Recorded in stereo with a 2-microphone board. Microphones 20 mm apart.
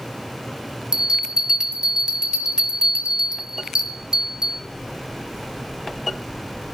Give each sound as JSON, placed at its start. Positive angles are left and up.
{"t": 0.9, "sound": "a bell", "side_deg": -45, "distance_m": 1.0}